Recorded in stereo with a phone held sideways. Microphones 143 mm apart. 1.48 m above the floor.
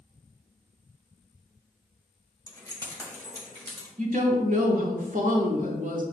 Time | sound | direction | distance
2.5 | keys jangling | 25° left (ahead or behind) | 0.8 m
4.0 | a woman speaking | 65° right (ahead or behind) | 0.8 m